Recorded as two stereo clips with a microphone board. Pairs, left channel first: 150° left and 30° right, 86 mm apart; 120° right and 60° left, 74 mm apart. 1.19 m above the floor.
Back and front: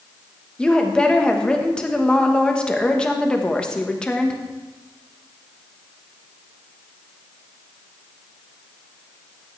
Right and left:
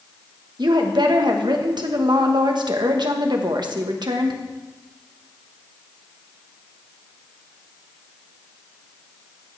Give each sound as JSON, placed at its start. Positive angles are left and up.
{"t": 0.6, "sound": "a woman speaking", "azimuth_deg": 70, "distance_m": 1.2}